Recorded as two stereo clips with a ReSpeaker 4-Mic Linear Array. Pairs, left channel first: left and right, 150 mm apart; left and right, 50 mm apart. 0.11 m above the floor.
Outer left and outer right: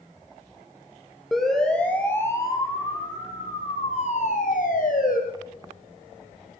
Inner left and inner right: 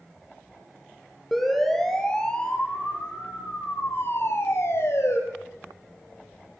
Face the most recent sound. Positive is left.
turn(degrees=65)  # may be behind; listen again after turning